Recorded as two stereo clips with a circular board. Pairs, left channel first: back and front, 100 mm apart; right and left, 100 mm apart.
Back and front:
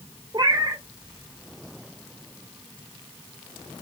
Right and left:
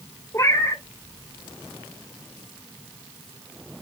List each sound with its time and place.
0.3 s a cat meowing: 35° right, 0.7 m